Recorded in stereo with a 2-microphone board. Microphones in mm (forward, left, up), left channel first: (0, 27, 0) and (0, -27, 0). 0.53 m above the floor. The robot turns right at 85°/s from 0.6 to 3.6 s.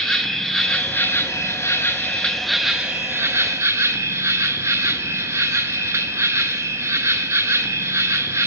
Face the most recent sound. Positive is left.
turn(degrees=-90)